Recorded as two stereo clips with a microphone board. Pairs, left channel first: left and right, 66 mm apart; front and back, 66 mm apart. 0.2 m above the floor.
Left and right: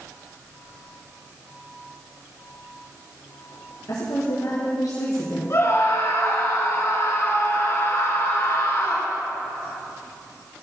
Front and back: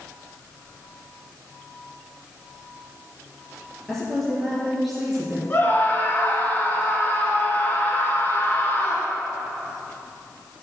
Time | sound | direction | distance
3.9 | a woman speaking | 85° left | 4 m
5.5 | a scream | 55° left | 3 m